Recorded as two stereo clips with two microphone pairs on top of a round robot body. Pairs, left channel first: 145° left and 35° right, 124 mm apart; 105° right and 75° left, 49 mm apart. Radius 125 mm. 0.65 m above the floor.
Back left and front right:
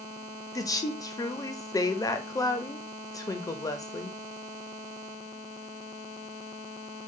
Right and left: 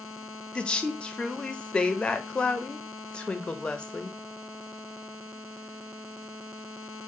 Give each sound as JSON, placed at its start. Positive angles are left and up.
{"t": 0.6, "sound": "a woman speaking", "azimuth_deg": -165, "distance_m": 0.6}